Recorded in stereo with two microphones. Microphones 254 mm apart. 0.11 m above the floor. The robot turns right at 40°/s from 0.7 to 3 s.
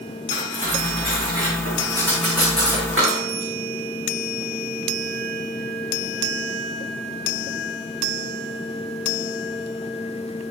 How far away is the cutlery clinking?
About 6.5 m.